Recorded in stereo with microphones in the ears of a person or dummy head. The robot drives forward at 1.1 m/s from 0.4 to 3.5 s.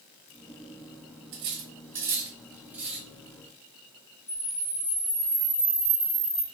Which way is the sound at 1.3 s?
30° right (ahead or behind).